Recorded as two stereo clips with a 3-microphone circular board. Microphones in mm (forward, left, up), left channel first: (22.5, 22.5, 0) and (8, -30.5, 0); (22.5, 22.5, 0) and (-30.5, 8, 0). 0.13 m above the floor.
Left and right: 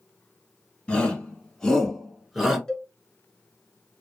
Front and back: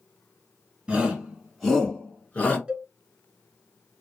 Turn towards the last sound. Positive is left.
turn(degrees=145)